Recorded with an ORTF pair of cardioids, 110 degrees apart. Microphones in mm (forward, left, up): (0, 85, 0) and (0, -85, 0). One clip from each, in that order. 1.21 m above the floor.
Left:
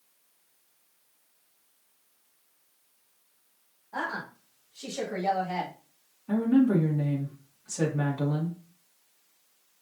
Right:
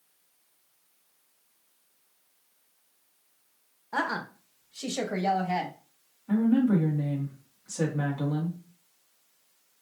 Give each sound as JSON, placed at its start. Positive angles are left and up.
{"t": 3.9, "sound": "a woman speaking", "azimuth_deg": -65, "distance_m": 1.2}
{"t": 6.3, "sound": "a woman speaking", "azimuth_deg": 10, "distance_m": 1.9}